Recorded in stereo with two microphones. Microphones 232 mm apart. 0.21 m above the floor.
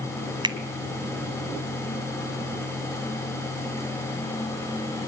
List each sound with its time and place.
0.4 s a finger snap: 20° right (ahead or behind), 1.3 m